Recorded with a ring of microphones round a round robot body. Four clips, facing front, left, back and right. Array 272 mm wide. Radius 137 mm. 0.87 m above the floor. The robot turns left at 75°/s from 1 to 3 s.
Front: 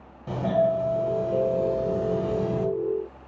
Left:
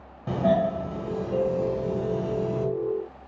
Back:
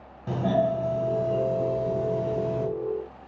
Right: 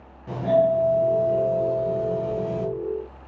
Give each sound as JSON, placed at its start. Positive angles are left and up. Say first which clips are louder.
{"t": 0.3, "sound": "a doorbell", "louder": "right 3 dB, front 1 dB", "azimuth_deg": 105, "distance_m": 1.1}